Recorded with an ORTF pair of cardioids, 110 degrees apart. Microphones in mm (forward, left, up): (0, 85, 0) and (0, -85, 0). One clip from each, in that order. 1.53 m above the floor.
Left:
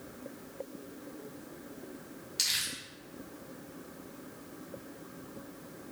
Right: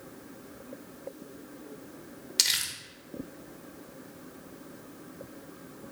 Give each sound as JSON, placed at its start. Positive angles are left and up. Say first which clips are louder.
{"t": 2.4, "sound": "crumpling", "louder": "right 5 dB", "azimuth_deg": -45, "distance_m": 1.4}